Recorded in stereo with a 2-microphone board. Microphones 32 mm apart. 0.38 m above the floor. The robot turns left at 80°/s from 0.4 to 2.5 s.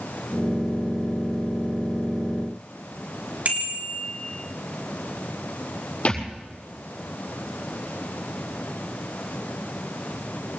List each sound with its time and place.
3.5 s a bicycle bell: 50° right (ahead or behind), 4 m
6.0 s a thud: 40° left (ahead or behind), 7 m